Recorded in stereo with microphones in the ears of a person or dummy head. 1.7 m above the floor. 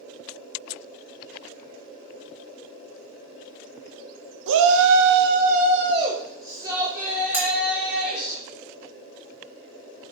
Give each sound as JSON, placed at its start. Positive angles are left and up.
{"t": 4.5, "sound": "a shout", "side_deg": -70, "distance_m": 1.2}
{"t": 7.3, "sound": "cutlery clinking", "side_deg": -10, "distance_m": 1.9}